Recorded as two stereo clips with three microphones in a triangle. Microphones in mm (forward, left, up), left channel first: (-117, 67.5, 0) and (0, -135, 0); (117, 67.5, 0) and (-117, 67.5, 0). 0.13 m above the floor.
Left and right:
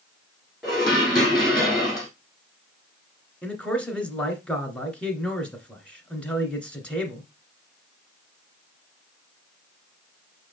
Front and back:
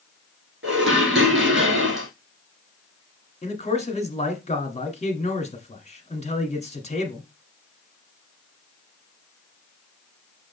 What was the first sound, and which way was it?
Dishes clattering, 150° right.